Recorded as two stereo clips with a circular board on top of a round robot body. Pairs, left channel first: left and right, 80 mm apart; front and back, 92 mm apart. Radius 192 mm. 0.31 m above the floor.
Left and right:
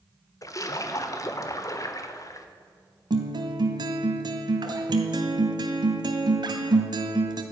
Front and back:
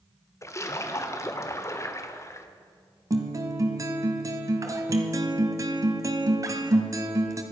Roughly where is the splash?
Ahead left.